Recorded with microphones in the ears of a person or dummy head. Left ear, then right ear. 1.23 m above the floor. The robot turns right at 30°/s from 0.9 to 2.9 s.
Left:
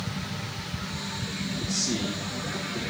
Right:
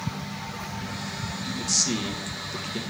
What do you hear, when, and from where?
1.6 s a man speaking: 110° right, 1.2 m; by 2.8 s 75° right, 1.2 m